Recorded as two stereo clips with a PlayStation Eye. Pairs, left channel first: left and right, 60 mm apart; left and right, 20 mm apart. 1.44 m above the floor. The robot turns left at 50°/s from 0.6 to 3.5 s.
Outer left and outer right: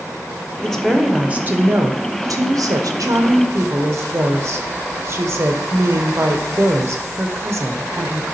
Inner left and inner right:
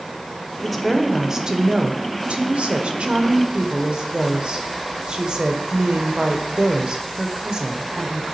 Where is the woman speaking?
10° left, 0.8 m; by 8.3 s 130° right, 0.8 m.